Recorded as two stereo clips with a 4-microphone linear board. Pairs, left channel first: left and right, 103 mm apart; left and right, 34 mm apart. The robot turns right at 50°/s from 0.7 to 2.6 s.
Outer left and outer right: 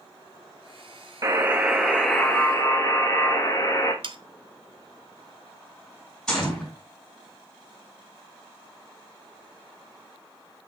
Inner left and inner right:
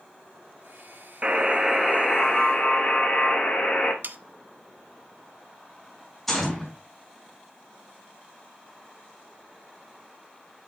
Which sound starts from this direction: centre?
A gunshot, at 6.3 s.